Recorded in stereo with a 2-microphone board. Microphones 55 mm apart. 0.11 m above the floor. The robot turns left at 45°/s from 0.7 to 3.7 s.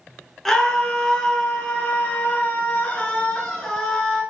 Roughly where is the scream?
Centre.